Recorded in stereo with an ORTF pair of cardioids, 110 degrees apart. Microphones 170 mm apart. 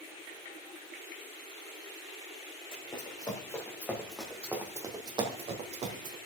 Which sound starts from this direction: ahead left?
Running footsteps, at 2.7 s.